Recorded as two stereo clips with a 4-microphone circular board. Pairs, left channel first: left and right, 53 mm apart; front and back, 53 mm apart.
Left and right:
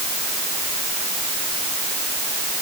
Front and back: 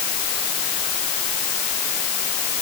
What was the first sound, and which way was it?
Only background noise.